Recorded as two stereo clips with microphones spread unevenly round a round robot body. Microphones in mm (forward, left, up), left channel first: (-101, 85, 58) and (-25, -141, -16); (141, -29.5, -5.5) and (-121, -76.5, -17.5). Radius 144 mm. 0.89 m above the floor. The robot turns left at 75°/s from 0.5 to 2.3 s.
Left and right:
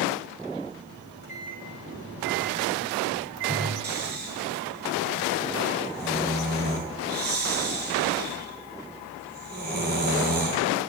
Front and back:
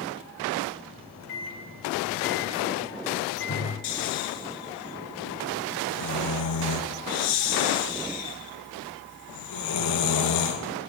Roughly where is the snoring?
Ahead.